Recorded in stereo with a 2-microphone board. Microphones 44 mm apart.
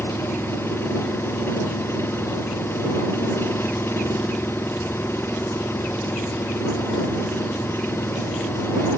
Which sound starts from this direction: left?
An engine running, at 0.0 s.